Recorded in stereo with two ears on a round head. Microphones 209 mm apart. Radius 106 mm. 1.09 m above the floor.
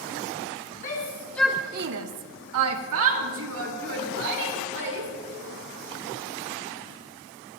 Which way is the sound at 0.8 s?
35° left (ahead or behind).